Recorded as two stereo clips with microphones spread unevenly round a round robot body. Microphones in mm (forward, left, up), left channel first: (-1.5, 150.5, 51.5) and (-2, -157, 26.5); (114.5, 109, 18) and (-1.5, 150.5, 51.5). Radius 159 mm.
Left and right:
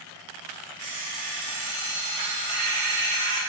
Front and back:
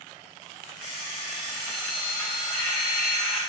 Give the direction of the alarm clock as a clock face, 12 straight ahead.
4 o'clock.